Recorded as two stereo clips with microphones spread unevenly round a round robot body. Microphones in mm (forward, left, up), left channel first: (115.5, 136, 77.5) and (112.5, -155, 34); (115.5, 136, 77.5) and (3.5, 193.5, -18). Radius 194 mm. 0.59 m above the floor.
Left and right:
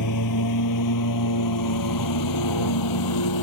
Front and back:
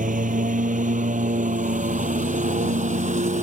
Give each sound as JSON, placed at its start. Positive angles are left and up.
{"t": 0.0, "sound": "a lawn mower", "azimuth_deg": 135}